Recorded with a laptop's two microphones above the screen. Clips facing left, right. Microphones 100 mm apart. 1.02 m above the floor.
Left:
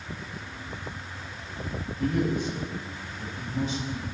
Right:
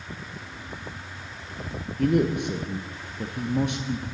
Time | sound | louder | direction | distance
2.0 | a man speaking | right 4 dB | 70° right (ahead or behind) | 0.6 m